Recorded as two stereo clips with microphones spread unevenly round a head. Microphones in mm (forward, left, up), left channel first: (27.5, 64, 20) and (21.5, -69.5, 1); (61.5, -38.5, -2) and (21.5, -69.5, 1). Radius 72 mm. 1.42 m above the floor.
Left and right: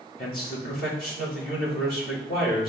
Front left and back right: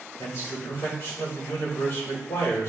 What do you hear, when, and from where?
0.2 s a man speaking: 75° left, 3 m